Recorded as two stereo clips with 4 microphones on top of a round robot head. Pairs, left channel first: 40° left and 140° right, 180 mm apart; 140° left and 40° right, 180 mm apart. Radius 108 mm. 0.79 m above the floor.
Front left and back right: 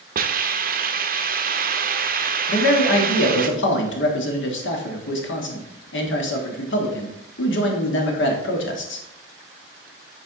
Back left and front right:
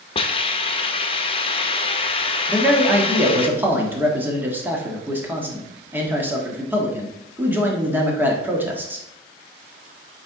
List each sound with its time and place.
0.1 s a hiss: 165° right, 0.7 m
2.5 s a man speaking: 40° left, 1.3 m